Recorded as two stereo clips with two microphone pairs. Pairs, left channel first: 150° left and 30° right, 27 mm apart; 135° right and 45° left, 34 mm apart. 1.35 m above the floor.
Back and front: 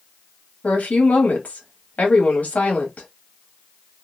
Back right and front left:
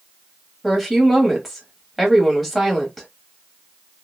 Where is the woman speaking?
135° left, 2 m.